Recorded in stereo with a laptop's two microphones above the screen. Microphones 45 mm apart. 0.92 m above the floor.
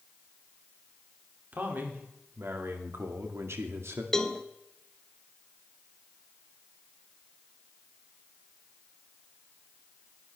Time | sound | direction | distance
1.5 | a man speaking | 45° right (ahead or behind) | 2.5 m
4.1 | a cowbell | 10° left (ahead or behind) | 1.1 m